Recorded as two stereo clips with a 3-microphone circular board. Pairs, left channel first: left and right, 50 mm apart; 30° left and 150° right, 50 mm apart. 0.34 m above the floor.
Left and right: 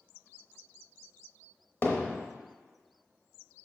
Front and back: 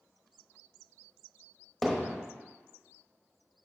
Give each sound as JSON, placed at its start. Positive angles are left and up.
{"t": 1.8, "sound": "hammering", "azimuth_deg": 115, "distance_m": 0.9}